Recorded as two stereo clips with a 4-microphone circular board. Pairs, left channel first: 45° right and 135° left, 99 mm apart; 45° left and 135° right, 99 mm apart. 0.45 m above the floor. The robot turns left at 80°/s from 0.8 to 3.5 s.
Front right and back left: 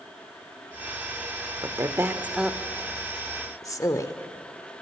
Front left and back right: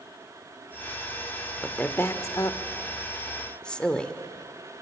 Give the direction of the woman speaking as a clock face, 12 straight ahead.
8 o'clock.